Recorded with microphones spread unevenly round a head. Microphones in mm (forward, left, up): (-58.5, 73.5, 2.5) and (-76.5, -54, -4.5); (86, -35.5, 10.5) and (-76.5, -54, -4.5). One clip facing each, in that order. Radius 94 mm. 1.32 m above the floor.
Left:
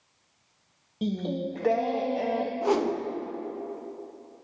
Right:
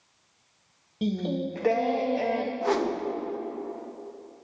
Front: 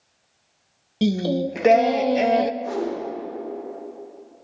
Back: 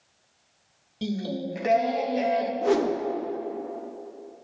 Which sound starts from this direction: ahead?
Singing, at 1.0 s.